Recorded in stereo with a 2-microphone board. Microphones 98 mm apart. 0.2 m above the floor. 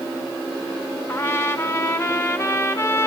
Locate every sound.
1.1 s a trumpet: 25° left (ahead or behind), 1.1 m